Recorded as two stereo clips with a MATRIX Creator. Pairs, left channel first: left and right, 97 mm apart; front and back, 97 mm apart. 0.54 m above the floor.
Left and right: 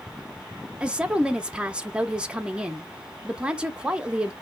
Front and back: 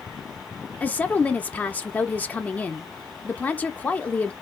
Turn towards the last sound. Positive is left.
turn(degrees=-35)